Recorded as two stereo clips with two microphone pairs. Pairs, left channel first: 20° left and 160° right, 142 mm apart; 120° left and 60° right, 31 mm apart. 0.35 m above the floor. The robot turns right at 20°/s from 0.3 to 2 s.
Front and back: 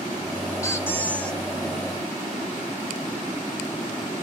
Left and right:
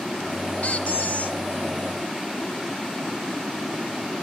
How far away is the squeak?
About 0.5 m.